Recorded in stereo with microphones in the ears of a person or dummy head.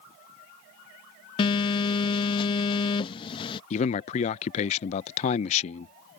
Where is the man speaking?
35° left (ahead or behind).